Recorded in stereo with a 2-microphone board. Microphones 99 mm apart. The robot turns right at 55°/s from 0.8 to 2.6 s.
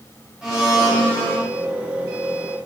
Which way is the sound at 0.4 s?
5° right.